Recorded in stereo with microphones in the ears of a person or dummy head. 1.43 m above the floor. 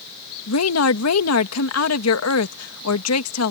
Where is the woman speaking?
90° left.